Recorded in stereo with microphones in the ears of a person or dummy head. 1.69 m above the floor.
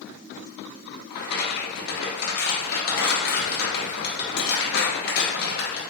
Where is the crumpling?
60° left (ahead or behind), 1.1 m.